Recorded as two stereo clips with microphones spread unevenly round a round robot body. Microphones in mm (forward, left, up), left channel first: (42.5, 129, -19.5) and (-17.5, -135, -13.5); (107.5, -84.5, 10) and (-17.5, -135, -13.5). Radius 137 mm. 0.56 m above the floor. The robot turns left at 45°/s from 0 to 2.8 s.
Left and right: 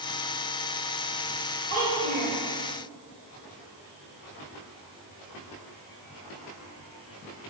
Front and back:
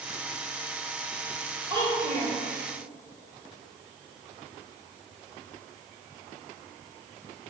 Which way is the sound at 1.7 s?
100° right.